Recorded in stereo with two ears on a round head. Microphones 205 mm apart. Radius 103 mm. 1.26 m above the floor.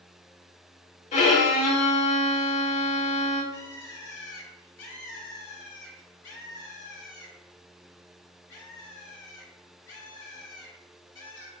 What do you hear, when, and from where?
1.1 s a violin: 30° left (ahead or behind), 1.1 m
3.5 s a bird: 55° left (ahead or behind), 1.5 m